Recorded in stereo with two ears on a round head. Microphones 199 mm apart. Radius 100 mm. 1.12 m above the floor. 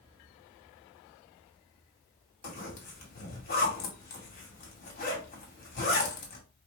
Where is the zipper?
40° left (ahead or behind), 2 m.